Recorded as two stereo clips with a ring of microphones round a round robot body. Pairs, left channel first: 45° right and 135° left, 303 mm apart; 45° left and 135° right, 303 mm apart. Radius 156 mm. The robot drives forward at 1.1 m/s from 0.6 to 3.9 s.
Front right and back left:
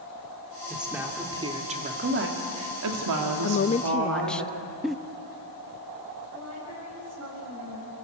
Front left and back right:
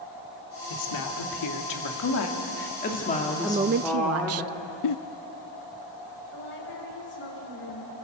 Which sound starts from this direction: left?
A woman speaking, at 6.3 s.